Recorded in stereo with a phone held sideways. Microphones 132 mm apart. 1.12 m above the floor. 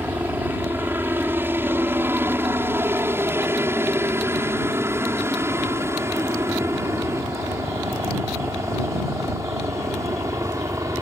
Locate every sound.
0.0 s a helicopter: 15° right (ahead or behind); by 11.0 s 25° right (ahead or behind)